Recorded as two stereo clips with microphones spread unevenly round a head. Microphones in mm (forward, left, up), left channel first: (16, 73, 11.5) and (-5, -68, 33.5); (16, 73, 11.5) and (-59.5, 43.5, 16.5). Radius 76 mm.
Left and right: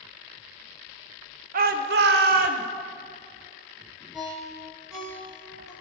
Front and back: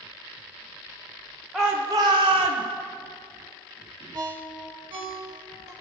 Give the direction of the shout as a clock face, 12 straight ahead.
2 o'clock.